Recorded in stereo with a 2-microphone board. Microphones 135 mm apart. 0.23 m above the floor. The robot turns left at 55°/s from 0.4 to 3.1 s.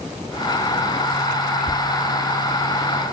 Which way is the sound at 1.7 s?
60° left (ahead or behind).